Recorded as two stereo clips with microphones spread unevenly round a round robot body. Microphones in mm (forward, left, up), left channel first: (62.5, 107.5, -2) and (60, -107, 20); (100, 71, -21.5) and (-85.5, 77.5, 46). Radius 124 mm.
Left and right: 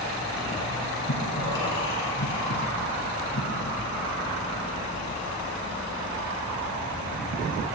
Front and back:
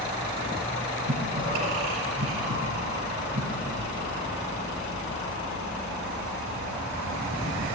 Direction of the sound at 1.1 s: 130° left.